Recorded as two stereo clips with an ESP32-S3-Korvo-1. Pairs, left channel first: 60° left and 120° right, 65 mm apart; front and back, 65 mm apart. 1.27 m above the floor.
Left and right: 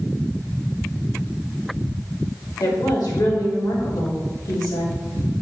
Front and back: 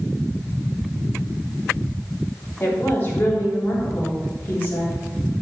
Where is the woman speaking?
55° left, 3 m.